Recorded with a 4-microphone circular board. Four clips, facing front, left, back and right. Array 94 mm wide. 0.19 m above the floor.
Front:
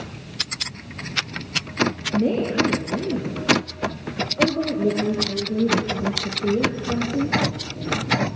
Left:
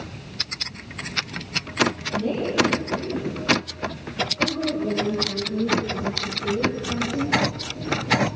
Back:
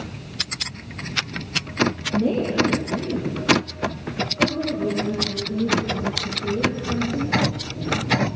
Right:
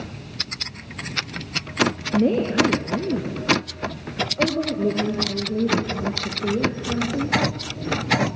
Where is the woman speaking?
75° right, 3.5 m; by 7.4 s 30° right, 6.5 m.